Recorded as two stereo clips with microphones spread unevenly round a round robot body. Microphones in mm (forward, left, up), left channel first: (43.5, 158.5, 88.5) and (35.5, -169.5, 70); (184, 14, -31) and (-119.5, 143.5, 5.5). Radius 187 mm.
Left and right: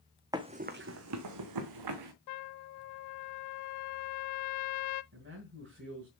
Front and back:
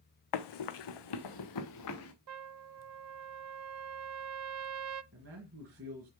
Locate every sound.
0.3 s running footsteps: 10° right, 1.0 m; by 2.1 s 80° right, 1.4 m
2.3 s a trumpet: 120° left, 0.7 m
5.1 s a man speaking: 145° right, 2.5 m